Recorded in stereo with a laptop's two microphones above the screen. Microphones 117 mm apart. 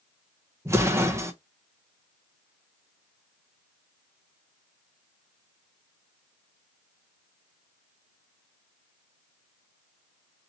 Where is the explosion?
25° right (ahead or behind), 0.6 m.